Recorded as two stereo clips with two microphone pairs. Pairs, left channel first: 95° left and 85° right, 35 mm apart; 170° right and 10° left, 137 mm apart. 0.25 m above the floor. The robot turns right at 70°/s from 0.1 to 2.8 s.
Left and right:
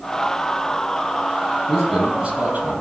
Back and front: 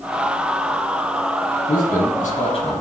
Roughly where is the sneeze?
No sneeze in this recording.